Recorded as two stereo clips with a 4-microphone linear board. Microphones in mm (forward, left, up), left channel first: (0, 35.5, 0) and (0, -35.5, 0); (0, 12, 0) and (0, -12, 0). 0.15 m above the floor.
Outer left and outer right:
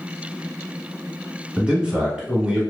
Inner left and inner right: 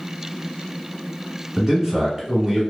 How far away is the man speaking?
About 1.0 m.